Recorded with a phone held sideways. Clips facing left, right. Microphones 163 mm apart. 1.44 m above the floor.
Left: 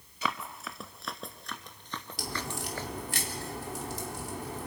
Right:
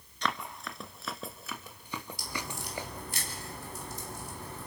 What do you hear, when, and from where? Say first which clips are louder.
0.2 s running footsteps: even; 5° left (ahead or behind), 1.4 m; by 2.9 s 15° right (ahead or behind), 1.7 m
2.2 s a crack: left 3 dB; 85° left, 3.5 m